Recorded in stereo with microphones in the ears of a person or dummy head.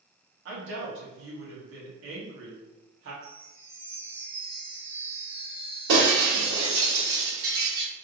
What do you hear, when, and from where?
0.5 s a woman speaking: 70° right (ahead or behind), 1.5 m
3.2 s a chime: 40° right (ahead or behind), 1.3 m
5.9 s breaking glass: 70° right (ahead or behind), 1.8 m